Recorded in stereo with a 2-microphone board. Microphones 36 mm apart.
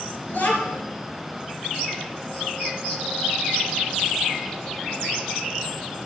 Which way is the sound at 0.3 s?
60° left (ahead or behind).